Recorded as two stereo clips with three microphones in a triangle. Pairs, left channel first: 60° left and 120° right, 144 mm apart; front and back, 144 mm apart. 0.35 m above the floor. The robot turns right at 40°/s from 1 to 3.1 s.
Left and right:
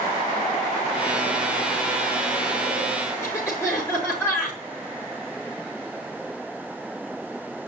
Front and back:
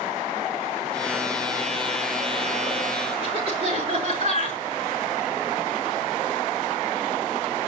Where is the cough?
135° left, 6 m.